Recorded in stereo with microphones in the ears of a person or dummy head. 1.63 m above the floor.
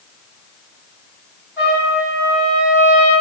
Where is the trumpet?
10° right (ahead or behind), 1.6 m.